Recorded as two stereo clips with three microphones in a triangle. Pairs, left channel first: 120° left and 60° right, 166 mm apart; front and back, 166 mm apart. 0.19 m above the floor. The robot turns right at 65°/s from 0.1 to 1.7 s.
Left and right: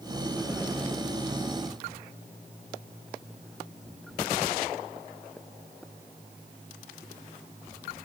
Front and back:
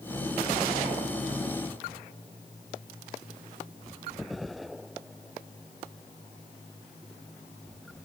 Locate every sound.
Only background noise.